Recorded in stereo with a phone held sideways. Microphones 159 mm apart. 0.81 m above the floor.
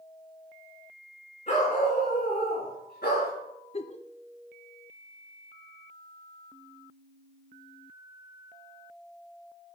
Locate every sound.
1.5 s a dog barking: 45° left (ahead or behind), 4 m; by 3.3 s 80° left, 5 m
3.7 s a giggle: 40° left (ahead or behind), 0.7 m